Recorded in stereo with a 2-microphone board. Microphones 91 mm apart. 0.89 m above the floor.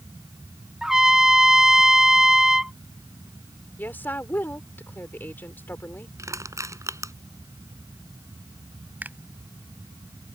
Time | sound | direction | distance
0.8 | a trumpet | 5° right (ahead or behind) | ?
3.8 | a woman speaking | 25° left (ahead or behind) | ?
6.2 | crushing | 40° right (ahead or behind) | ?
9.0 | a finger snap | 20° right (ahead or behind) | ?